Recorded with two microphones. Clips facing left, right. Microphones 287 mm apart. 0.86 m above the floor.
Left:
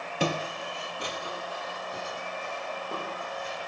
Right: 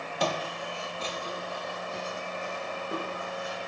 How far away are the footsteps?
About 0.9 m.